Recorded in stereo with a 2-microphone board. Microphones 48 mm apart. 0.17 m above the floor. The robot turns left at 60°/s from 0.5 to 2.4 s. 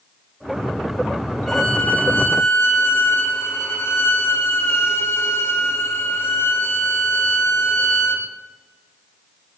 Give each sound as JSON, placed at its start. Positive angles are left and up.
{"t": 1.5, "sound": "a violin", "azimuth_deg": 175, "distance_m": 2.0}